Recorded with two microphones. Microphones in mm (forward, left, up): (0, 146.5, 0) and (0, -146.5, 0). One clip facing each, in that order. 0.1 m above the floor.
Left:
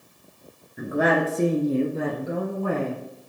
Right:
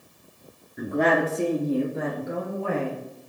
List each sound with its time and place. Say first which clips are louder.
0.8 s a woman speaking: even; centre (ahead or behind), 1.1 m; by 3.0 s 55° left (ahead or behind), 1.9 m